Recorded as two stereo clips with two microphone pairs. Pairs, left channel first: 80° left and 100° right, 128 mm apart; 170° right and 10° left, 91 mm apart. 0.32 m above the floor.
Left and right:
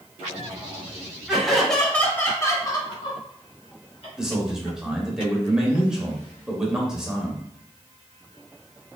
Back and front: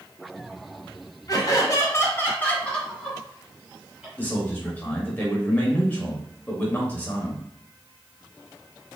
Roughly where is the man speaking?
Behind.